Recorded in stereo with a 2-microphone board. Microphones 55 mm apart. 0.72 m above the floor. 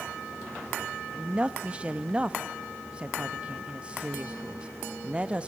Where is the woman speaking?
20° right (ahead or behind), 0.6 m.